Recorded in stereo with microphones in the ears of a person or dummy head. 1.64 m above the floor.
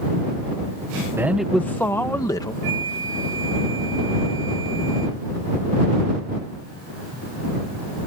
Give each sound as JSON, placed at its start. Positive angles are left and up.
{"t": 1.2, "sound": "a man speaking", "side_deg": -5}
{"t": 2.6, "sound": "a flute", "side_deg": -35}